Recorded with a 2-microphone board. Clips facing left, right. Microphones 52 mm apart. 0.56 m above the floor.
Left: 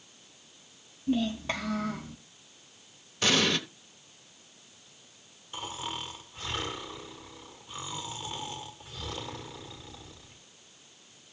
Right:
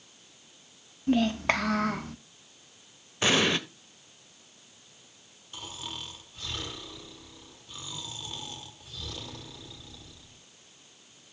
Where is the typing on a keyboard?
I don't hear typing on a keyboard.